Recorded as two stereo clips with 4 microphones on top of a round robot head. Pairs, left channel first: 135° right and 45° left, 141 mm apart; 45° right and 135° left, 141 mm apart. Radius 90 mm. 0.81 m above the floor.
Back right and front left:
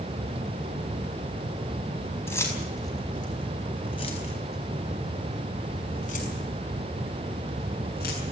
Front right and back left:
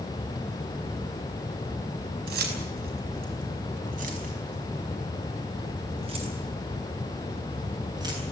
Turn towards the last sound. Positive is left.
turn(degrees=-160)